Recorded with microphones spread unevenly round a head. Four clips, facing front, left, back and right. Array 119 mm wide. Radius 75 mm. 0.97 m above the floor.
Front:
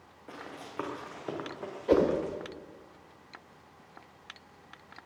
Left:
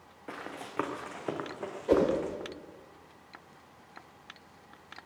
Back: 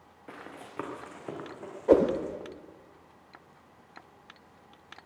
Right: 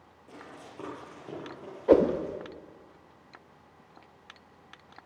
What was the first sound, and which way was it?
Running footsteps, 85° left.